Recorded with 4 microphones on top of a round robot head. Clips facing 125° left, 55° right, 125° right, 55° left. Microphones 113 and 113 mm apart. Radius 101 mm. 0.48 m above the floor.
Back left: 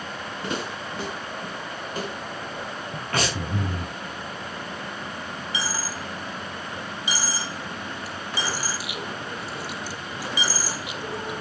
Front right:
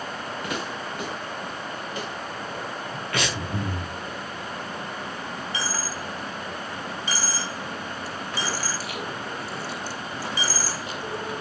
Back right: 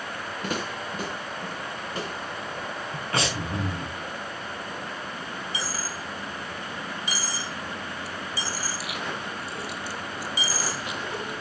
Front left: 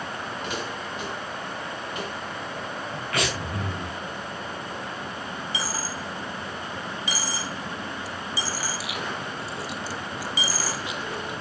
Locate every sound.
0.4 s footsteps: 170° right, 4.5 m; by 3.0 s 170° left, 5 m
3.1 s breathing: 175° left, 4 m
5.5 s a dropped coin: 45° left, 1.6 m